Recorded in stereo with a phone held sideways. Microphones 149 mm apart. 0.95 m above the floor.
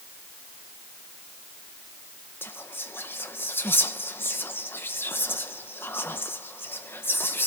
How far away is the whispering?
About 0.9 m.